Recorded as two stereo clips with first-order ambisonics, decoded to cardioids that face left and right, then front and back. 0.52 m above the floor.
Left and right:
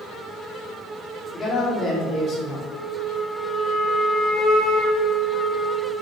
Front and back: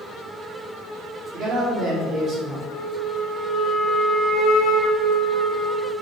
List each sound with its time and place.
1.3 s a man speaking: 115° left, 1.5 m
2.7 s a flute: 60° left, 1.5 m